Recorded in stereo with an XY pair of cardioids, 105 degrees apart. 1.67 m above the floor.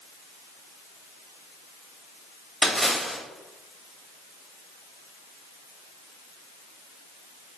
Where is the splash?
Straight ahead, 1.1 m.